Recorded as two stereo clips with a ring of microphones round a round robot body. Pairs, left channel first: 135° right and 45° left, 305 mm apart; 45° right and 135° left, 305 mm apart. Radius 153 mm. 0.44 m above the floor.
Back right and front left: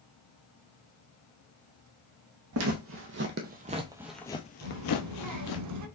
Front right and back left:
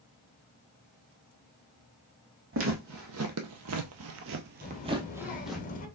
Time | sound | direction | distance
2.5 | footsteps | 85° left | 1.1 m
4.6 | a child speaking | 20° left | 1.1 m